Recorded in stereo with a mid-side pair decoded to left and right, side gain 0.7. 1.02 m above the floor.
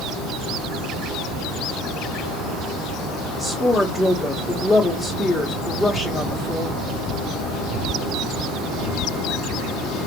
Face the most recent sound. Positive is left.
turn(degrees=-5)